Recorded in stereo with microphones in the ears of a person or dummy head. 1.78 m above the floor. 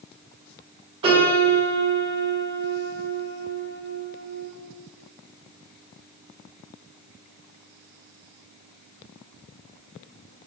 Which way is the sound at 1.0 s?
25° right (ahead or behind).